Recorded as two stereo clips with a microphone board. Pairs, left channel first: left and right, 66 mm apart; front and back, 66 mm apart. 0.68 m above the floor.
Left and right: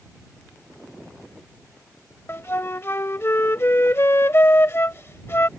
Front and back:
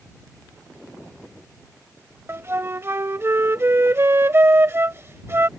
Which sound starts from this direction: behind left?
A flute, at 2.3 s.